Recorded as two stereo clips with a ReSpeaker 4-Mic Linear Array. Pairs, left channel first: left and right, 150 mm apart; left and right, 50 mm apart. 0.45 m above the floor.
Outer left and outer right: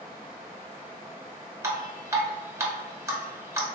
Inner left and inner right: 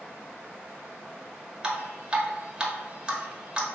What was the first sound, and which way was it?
Dripping, 20° right (ahead or behind).